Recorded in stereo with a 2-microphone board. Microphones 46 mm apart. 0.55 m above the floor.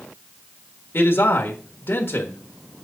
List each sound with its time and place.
0.9 s a man speaking: 55° left (ahead or behind), 1.3 m